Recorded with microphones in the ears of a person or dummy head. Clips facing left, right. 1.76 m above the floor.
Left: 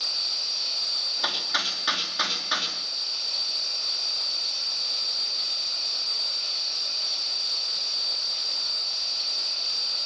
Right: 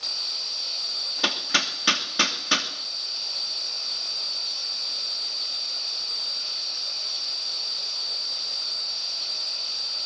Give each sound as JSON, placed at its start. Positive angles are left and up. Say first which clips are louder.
{"t": 1.2, "sound": "hammering", "louder": "right 5 dB", "side_deg": -35, "distance_m": 2.5}